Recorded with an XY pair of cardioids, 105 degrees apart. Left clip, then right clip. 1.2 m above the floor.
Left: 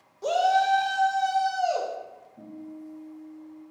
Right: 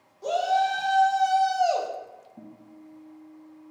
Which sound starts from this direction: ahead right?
A guitar, at 2.4 s.